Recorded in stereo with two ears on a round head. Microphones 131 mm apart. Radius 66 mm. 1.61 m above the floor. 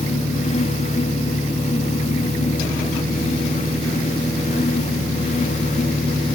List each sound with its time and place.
0.0 s an engine running: 15° right (ahead or behind), 1.3 m